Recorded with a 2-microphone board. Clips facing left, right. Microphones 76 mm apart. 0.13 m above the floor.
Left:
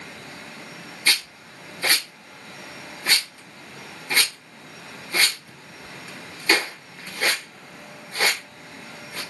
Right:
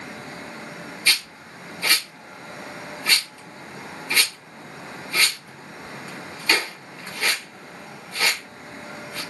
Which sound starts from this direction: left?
A rattle, at 1.1 s.